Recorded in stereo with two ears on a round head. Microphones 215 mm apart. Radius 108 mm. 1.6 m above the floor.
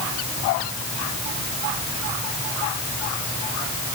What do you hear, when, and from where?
Only background noise.